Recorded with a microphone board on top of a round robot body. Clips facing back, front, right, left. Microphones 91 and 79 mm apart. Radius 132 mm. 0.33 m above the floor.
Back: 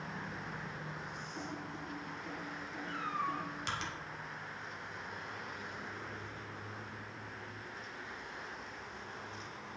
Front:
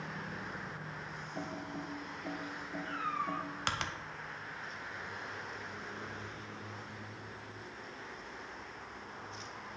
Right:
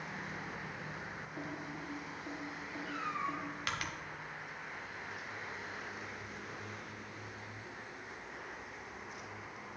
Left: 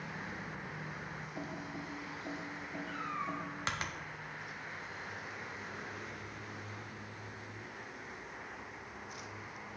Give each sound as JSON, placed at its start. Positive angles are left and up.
{"t": 1.4, "sound": "typing on a keyboard", "azimuth_deg": 25, "distance_m": 0.8}
{"t": 2.9, "sound": "a cat meowing", "azimuth_deg": 15, "distance_m": 3.5}